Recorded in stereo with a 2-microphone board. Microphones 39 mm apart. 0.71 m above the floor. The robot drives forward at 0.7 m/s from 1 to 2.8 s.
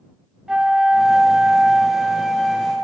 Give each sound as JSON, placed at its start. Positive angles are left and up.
{"t": 0.5, "sound": "a flute", "side_deg": -15, "distance_m": 0.6}